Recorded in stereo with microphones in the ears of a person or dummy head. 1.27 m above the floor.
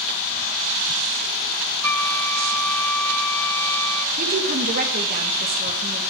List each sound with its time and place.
1.8 s a flute: 10° left (ahead or behind), 0.5 m
4.2 s a woman speaking: 40° right (ahead or behind), 1.8 m